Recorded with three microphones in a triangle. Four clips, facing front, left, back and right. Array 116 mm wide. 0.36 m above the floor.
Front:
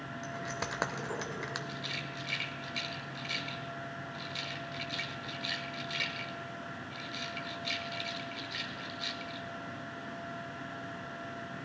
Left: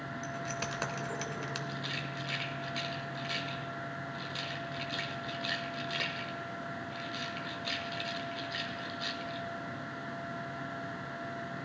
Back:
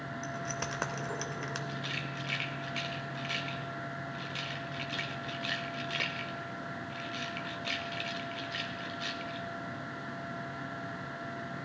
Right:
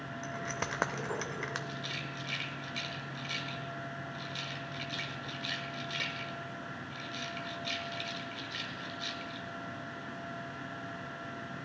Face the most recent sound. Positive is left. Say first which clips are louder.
# left 2 dB, back 2 dB
turn(degrees=140)